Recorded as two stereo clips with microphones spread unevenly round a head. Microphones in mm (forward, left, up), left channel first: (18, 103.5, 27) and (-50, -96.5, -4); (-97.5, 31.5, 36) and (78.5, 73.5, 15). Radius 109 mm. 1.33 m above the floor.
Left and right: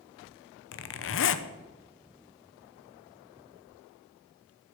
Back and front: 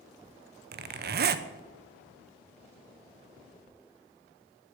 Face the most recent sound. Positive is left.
turn(degrees=35)